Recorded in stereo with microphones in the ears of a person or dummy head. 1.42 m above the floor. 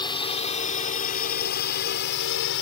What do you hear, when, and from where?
0.0 s a drone: 25° left (ahead or behind); by 2.6 s 65° left (ahead or behind)